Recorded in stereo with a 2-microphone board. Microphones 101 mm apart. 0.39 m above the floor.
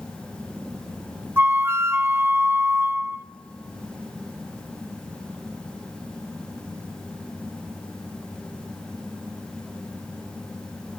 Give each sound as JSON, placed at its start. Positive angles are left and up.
{"t": 1.4, "sound": "a flute", "side_deg": -25, "distance_m": 0.7}